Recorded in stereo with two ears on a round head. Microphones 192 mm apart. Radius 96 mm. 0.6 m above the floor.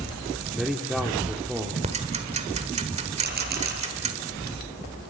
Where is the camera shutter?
50° right (ahead or behind), 6.5 m.